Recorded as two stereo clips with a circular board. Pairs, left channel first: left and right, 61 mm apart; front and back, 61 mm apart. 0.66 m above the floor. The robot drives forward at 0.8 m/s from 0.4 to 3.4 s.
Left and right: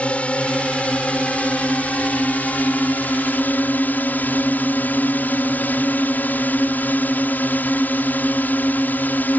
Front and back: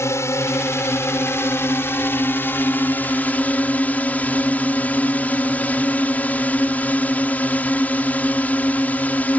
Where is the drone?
25° left; by 9.4 s 50° left.